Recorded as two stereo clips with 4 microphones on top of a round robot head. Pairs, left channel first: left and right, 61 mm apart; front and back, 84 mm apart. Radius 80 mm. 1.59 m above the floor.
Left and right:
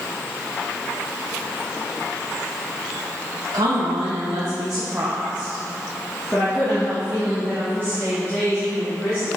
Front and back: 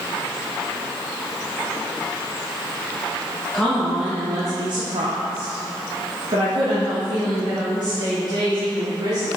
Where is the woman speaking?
80° right, 1.0 m; by 9.3 s 150° left, 3 m.